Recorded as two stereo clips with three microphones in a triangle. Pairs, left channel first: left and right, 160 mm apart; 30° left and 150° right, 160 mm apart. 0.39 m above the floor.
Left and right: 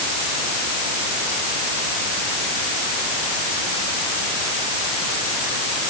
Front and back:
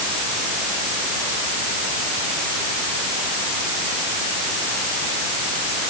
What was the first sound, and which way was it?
Only background noise.